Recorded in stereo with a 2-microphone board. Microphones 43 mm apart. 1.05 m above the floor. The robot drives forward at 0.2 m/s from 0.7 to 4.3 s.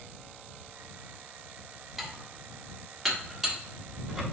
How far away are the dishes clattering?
About 0.9 m.